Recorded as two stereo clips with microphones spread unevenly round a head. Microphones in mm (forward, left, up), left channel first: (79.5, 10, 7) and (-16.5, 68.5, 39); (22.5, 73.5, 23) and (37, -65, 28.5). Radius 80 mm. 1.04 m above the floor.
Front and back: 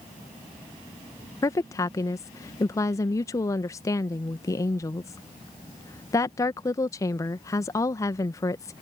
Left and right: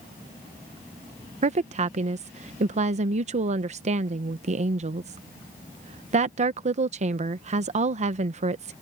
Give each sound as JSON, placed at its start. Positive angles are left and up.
{"t": 1.4, "sound": "a woman speaking", "azimuth_deg": -70}